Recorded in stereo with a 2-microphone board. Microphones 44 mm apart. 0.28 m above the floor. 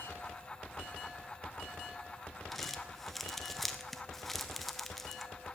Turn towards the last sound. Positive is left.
turn(degrees=5)  # may be behind; listen again after turning